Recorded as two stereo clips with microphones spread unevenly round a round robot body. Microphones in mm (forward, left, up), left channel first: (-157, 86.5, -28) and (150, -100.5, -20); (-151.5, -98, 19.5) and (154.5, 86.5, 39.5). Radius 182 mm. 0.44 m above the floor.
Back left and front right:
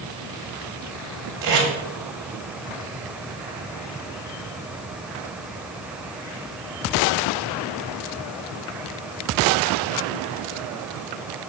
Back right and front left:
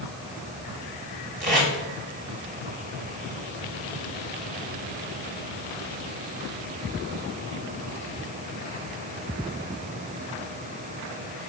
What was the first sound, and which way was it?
Tape being pulled, 30° right.